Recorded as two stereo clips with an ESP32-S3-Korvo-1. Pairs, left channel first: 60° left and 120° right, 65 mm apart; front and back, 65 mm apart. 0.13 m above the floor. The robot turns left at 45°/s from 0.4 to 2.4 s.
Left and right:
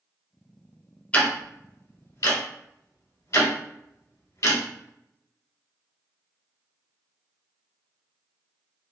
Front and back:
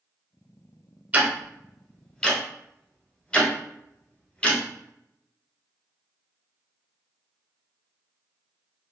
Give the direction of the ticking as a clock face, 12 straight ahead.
8 o'clock.